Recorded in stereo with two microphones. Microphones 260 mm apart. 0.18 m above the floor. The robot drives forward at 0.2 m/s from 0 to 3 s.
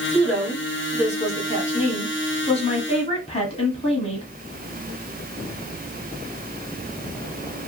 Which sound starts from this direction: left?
A woman speaking, at 0.1 s.